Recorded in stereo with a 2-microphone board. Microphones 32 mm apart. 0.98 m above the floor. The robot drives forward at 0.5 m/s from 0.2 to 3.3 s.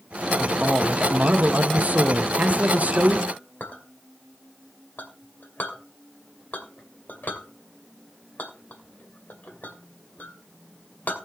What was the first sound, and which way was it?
A man speaking, 40° right (ahead or behind).